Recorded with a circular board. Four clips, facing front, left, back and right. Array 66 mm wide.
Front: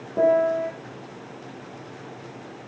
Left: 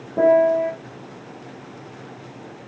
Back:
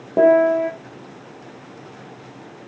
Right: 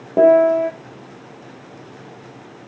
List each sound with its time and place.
0.2 s a piano: 130° right, 3 m